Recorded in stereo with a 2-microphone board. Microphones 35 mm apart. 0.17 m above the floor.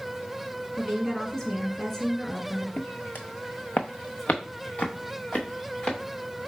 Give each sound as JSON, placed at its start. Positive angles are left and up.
{"t": 0.8, "sound": "a woman speaking", "side_deg": 15, "distance_m": 1.3}
{"t": 2.8, "sound": "footsteps", "side_deg": 50, "distance_m": 0.5}